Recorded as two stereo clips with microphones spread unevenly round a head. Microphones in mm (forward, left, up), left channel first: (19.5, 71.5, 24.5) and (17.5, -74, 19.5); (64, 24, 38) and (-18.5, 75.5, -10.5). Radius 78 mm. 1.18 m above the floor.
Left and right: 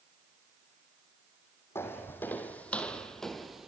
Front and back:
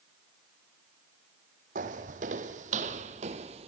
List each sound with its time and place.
1.8 s footsteps: 160° left, 2.0 m; by 3.7 s straight behind, 1.3 m